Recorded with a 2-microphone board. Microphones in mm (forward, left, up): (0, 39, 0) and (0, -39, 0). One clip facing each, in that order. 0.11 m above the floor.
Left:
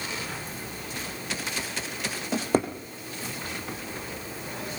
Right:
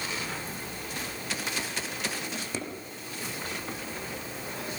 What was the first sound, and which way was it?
A drawer, 50° left (ahead or behind).